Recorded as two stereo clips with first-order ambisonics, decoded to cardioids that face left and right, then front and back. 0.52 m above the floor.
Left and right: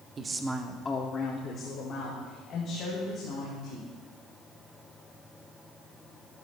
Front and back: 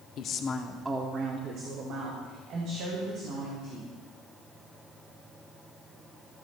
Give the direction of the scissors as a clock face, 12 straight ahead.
No scissors in this recording.